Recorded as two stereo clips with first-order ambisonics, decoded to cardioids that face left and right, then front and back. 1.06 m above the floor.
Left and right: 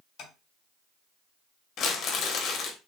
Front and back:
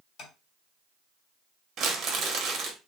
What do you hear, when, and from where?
0.2 s tapping: 50° left, 1.4 m
1.8 s crumpling: 130° left, 1.0 m